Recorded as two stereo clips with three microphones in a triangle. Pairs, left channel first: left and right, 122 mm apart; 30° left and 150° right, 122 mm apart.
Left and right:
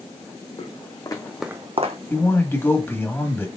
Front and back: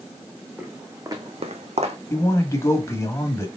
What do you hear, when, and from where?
0.6 s footsteps: 130° left, 1.4 m; by 2.0 s 115° right, 0.9 m
2.1 s a man speaking: 45° left, 1.1 m